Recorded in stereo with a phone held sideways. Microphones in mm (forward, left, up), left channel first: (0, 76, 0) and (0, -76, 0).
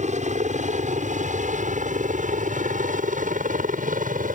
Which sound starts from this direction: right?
A helicopter, at 0.0 s.